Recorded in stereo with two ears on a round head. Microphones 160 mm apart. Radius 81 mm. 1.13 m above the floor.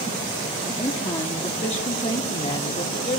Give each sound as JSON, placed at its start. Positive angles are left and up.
{"t": 0.8, "sound": "a woman speaking", "side_deg": 25, "distance_m": 2.5}